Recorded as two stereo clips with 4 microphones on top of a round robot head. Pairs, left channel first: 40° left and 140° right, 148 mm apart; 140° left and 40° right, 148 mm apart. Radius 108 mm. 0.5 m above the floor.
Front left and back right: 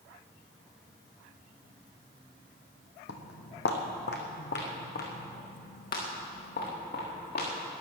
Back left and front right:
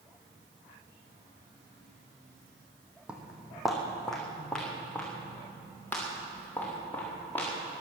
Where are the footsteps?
45° left, 1.5 m; by 7.5 s 65° left, 5 m.